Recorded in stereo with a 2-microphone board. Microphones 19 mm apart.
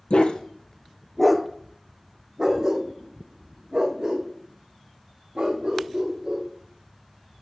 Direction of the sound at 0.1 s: 65° left (ahead or behind).